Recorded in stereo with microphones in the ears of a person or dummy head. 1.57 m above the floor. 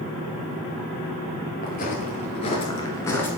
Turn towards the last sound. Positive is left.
turn(degrees=10)  # may be behind; listen again after turning